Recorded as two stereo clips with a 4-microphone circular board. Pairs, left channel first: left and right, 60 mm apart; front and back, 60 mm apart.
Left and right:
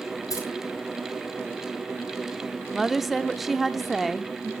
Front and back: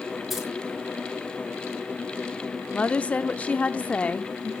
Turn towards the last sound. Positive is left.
turn(degrees=-5)